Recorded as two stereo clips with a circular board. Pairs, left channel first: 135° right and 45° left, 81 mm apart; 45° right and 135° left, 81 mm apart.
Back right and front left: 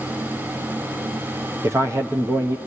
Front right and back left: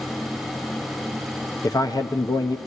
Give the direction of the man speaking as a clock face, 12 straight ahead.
12 o'clock.